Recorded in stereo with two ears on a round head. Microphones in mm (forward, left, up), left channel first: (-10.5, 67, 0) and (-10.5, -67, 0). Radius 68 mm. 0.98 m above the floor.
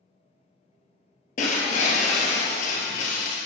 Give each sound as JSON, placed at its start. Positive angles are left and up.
{"t": 1.4, "sound": "breaking glass", "side_deg": 55, "distance_m": 1.8}